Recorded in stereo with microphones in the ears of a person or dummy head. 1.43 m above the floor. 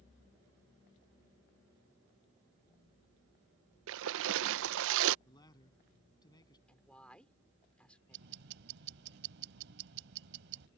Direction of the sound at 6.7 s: 5° left (ahead or behind).